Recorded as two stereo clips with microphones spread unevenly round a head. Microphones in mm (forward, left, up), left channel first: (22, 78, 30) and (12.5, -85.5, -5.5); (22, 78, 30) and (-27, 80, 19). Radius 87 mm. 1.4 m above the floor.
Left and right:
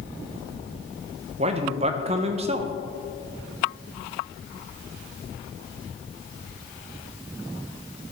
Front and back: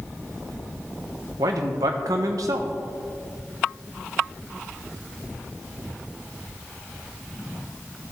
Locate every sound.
1.4 s a man speaking: 155° right, 0.6 m